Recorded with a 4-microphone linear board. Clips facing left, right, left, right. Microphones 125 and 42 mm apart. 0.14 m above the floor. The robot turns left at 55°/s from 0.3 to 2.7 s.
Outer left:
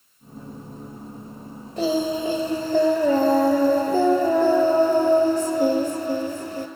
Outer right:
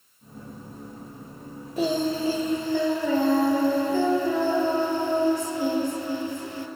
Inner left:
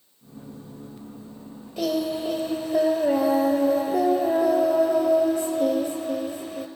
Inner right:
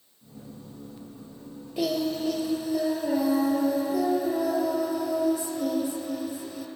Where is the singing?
175° right, 0.8 m; by 6.7 s 130° left, 0.8 m.